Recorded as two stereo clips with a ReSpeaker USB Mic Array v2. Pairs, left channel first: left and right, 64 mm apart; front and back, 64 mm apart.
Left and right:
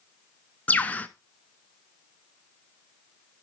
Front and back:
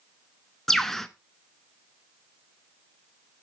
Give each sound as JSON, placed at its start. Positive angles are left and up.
{"t": 0.7, "sound": "a bird", "azimuth_deg": 80, "distance_m": 0.6}